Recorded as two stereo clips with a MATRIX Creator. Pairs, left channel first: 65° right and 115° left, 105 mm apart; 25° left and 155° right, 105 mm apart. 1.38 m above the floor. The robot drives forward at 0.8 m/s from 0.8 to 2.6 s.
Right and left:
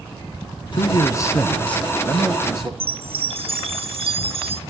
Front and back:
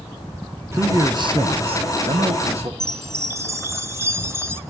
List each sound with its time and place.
0.7 s a man speaking: 95° right, 0.7 m; by 2.7 s 160° right, 1.7 m
2.8 s a chime: 135° left, 0.7 m